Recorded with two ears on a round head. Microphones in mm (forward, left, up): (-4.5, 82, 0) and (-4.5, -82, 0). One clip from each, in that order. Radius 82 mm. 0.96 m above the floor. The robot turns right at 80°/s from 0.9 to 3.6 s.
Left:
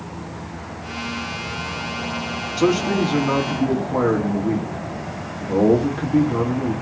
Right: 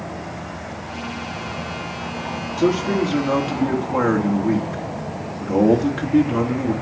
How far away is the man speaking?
About 2 m.